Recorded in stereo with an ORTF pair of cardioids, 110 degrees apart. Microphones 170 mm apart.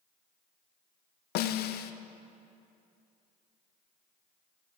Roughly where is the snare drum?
Left.